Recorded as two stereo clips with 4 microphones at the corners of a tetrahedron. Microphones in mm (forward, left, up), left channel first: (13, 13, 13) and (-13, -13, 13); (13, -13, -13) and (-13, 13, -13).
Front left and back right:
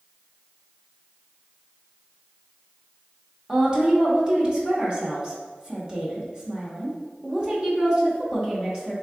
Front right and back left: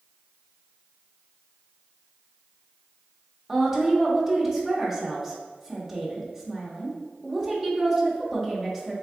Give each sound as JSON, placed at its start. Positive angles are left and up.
{"t": 3.5, "sound": "a woman speaking", "azimuth_deg": -165, "distance_m": 0.9}